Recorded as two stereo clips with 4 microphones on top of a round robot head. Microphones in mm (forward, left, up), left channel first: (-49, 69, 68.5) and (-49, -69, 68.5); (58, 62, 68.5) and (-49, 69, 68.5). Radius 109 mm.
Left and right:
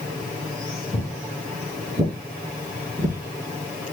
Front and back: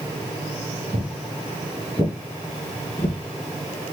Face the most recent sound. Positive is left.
turn(degrees=-45)